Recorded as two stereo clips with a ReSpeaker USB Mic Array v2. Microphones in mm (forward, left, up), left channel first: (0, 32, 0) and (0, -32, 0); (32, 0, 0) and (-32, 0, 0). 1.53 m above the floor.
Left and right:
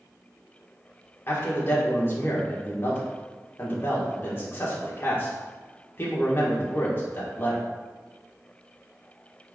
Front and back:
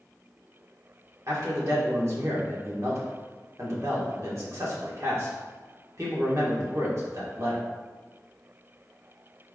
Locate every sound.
1.3 s a man speaking: 145° left, 1.6 m